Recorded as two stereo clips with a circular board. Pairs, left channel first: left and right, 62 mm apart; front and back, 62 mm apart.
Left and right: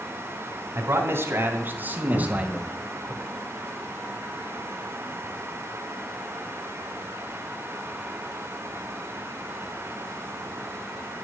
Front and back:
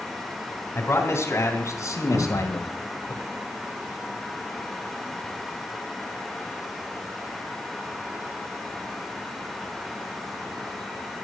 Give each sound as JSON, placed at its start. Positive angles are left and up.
{"t": 0.8, "sound": "a man speaking", "azimuth_deg": -55, "distance_m": 3.0}
{"t": 2.1, "sound": "a cupboard door", "azimuth_deg": -160, "distance_m": 9.0}